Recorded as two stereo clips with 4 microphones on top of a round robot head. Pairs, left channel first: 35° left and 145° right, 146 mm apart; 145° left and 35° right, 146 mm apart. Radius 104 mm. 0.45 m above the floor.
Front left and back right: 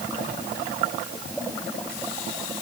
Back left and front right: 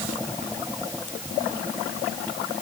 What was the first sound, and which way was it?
Only background noise.